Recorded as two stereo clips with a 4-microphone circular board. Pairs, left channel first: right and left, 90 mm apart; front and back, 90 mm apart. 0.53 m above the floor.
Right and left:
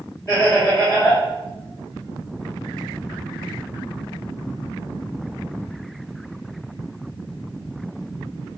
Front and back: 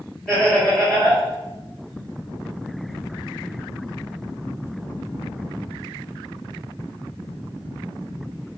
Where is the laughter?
75° right, 1.6 m.